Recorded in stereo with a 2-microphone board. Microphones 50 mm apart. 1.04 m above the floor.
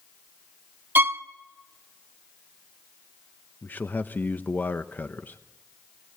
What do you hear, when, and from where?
0.9 s a violin: 45° right (ahead or behind), 0.7 m
3.6 s a man speaking: 40° left (ahead or behind), 0.7 m